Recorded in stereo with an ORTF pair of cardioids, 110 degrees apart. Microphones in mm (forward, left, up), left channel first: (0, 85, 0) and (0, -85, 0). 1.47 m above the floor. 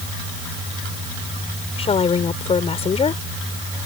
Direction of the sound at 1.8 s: 35° left.